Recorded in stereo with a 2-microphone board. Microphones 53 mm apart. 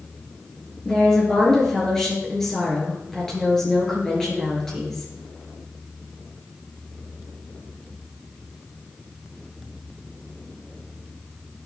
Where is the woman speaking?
10° left (ahead or behind), 6 m.